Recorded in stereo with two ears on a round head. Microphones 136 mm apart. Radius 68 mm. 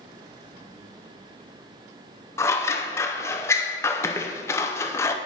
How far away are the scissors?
About 0.6 m.